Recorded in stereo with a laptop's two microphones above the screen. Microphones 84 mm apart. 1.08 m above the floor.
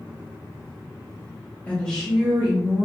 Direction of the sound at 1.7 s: 20° left (ahead or behind).